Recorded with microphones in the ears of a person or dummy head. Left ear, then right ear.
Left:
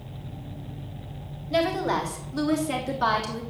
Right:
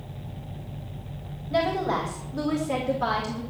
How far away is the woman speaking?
About 4 m.